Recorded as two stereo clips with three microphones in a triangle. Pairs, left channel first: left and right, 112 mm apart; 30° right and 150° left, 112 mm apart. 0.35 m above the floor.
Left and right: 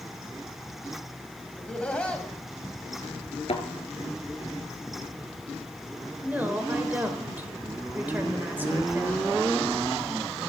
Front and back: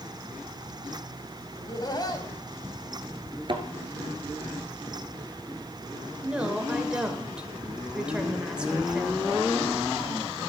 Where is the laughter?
15° left, 2.5 m.